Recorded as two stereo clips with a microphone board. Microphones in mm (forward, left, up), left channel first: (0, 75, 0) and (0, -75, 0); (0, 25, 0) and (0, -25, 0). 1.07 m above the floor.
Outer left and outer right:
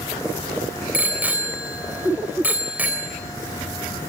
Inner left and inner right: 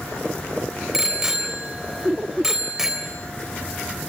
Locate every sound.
0.9 s a bicycle bell: 10° right (ahead or behind), 3 m